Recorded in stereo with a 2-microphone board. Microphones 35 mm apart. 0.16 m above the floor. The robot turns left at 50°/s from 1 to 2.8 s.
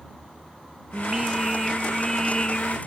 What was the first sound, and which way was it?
Singing, 150° right.